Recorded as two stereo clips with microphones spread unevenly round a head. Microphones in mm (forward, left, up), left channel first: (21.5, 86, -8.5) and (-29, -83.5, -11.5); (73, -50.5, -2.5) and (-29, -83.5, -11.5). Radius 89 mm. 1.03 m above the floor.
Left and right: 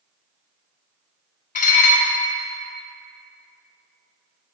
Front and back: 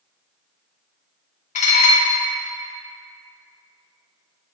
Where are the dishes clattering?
25° left, 1.0 m.